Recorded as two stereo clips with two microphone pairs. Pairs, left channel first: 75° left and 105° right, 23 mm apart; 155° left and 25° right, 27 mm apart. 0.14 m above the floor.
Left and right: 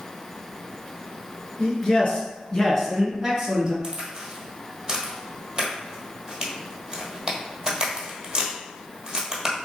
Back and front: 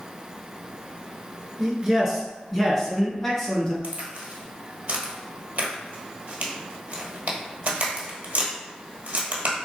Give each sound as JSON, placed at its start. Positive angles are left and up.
{"t": 1.6, "sound": "a man speaking", "azimuth_deg": 55, "distance_m": 2.0}
{"t": 3.8, "sound": "a crack", "azimuth_deg": -45, "distance_m": 1.4}